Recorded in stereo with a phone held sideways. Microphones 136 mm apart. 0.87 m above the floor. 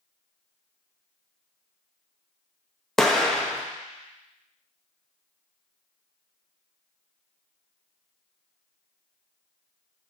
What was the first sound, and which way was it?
An explosion, centre (ahead or behind).